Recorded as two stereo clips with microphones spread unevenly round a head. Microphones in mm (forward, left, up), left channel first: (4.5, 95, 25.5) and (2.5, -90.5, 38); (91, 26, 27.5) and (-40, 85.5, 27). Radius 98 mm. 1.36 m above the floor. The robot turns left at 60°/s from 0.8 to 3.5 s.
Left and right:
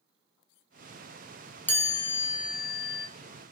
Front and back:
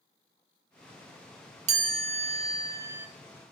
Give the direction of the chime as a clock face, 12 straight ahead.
7 o'clock.